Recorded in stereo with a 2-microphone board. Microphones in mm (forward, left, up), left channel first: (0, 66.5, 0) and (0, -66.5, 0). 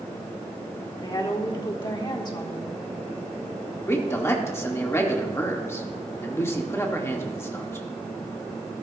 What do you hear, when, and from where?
1.0 s a woman speaking: 35° left (ahead or behind), 1.2 m
3.9 s a man speaking: 20° left (ahead or behind), 1.3 m